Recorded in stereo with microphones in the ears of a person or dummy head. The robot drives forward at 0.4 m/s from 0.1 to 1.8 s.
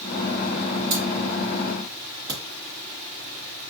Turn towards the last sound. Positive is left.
turn(degrees=-50)  # may be behind; listen again after turning